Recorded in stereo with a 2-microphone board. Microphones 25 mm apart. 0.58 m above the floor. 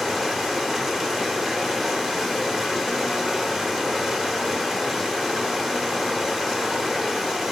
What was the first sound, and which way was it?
Running water, 15° right (ahead or behind).